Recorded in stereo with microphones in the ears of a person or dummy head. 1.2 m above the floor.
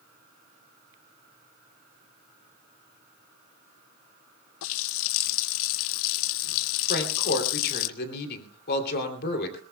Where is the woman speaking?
55° left (ahead or behind), 3 m.